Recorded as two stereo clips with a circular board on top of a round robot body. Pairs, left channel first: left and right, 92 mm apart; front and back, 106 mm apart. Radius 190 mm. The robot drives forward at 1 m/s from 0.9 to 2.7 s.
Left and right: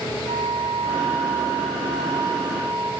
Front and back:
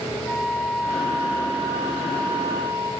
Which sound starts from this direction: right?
A flute, at 0.3 s.